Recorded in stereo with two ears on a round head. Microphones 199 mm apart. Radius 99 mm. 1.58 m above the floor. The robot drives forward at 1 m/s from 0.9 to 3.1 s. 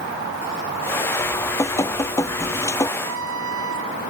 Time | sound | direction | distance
1.2 | dripping | 15° left (ahead or behind) | ?
3.0 | a trumpet | 70° right (ahead or behind) | ?